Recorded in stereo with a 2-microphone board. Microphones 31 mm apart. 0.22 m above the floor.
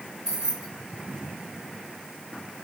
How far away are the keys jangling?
About 2 m.